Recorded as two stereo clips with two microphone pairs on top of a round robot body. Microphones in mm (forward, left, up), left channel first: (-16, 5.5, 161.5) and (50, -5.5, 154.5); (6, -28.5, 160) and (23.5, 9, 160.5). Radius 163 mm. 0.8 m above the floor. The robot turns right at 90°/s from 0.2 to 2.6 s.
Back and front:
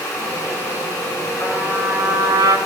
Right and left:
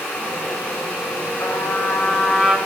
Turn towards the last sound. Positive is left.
turn(degrees=-10)